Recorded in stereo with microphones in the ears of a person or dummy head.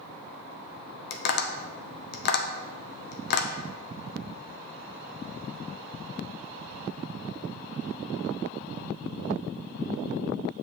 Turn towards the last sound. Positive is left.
turn(degrees=55)  # may be behind; listen again after turning